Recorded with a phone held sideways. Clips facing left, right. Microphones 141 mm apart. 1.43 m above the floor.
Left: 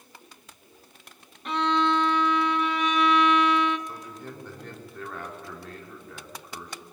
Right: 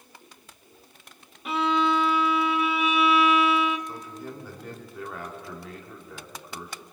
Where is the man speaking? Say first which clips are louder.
Right 2 dB; 5° right (ahead or behind), 3.5 m.